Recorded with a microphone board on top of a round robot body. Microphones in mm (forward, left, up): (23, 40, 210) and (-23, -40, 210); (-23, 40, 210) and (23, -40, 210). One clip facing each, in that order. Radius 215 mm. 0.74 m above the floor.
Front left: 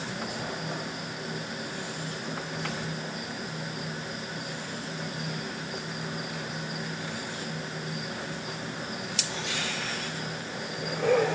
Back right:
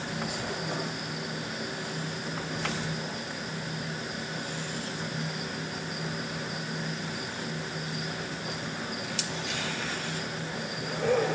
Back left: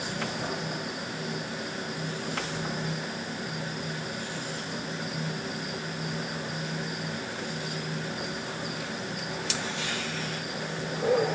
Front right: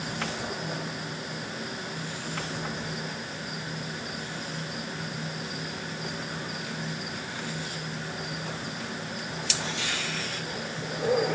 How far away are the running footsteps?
No running footsteps in this recording.